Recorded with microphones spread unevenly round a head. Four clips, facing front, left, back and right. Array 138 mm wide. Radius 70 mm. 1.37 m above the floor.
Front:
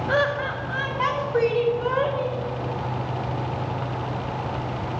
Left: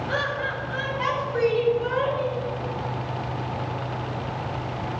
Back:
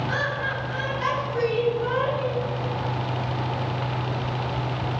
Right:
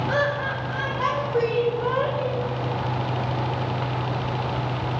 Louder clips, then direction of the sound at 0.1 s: Right 3 dB, front 4 dB; 30° right.